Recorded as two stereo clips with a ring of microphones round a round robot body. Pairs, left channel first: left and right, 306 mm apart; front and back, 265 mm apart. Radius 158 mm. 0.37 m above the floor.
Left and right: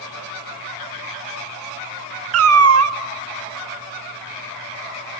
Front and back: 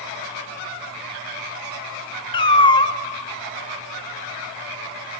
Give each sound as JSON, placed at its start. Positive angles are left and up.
{"t": 2.3, "sound": "a cat meowing", "azimuth_deg": -70, "distance_m": 0.8}